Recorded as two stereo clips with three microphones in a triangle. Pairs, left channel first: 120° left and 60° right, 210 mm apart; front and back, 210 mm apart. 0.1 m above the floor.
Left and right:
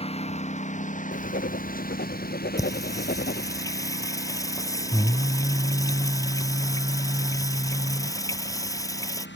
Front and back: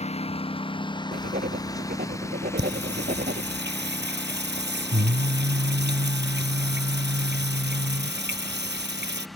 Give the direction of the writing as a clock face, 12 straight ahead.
7 o'clock.